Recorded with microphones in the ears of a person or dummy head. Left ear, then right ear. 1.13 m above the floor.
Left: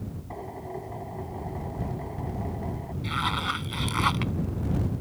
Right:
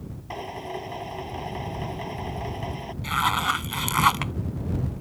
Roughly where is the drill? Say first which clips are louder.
Right 5 dB; right.